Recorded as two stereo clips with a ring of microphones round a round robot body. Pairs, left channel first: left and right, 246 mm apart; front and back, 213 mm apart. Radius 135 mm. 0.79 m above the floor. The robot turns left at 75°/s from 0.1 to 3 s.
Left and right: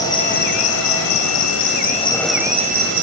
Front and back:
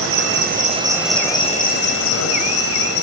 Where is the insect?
165° left, 3 m; by 3.0 s 50° right, 3 m.